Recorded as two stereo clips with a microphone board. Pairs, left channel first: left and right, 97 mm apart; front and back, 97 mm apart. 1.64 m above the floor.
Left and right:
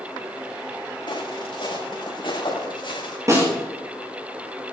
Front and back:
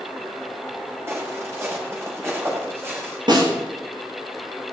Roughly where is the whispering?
I don't hear whispering.